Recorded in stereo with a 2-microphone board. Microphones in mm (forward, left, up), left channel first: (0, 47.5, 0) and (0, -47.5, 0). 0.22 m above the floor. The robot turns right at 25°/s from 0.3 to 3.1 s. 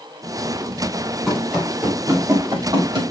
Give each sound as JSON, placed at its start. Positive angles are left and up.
{"t": 1.3, "sound": "running footsteps", "side_deg": 0, "distance_m": 5.5}